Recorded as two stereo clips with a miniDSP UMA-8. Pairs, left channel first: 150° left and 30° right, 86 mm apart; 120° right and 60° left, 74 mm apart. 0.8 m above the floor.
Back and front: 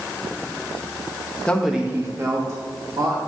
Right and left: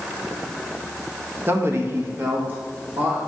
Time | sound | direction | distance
1.5 | a man speaking | 85° left | 0.7 m